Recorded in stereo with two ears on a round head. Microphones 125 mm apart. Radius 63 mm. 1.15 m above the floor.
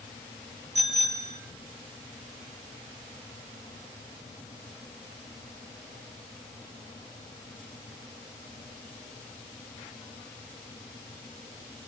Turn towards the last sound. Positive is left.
turn(degrees=-55)  # may be behind; listen again after turning